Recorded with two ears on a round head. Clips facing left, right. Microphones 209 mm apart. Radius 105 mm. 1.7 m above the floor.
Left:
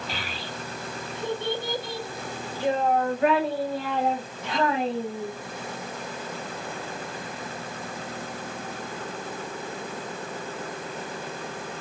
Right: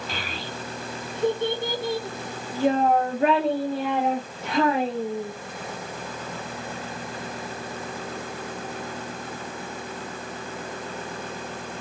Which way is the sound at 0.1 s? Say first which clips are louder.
Right 2 dB; 40° right (ahead or behind).